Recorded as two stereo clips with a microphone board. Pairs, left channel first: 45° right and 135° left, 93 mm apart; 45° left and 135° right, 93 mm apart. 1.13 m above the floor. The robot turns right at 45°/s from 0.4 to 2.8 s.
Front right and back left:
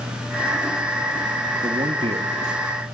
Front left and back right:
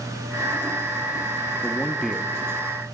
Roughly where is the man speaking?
Behind left.